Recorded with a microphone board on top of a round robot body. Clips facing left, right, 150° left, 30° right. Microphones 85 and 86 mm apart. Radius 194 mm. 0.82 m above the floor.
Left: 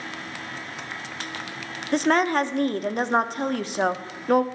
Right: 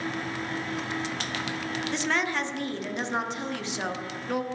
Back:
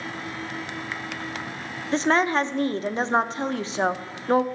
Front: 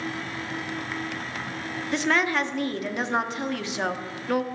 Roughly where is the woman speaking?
Left.